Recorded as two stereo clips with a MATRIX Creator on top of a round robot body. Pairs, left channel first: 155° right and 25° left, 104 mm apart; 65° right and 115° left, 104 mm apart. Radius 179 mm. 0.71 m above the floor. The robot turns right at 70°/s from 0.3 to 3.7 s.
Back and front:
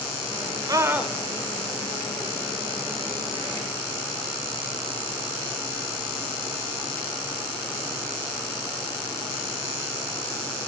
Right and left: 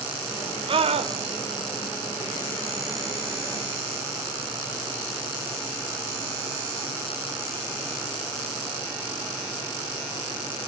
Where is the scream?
75° left, 3 m; by 1.1 s 110° left, 3 m.